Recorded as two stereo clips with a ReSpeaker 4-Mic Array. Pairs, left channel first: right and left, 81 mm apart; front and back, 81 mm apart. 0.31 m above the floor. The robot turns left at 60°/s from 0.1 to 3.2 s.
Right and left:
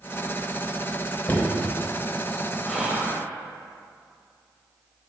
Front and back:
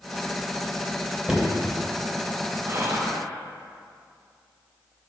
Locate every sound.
1.3 s knocking: 105° right, 0.9 m; by 1.7 s 135° right, 0.9 m
2.6 s whispering: straight behind, 1.1 m; by 3.3 s 145° left, 1.1 m